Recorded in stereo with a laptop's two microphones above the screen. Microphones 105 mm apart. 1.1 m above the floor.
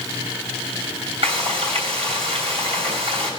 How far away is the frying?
About 3 m.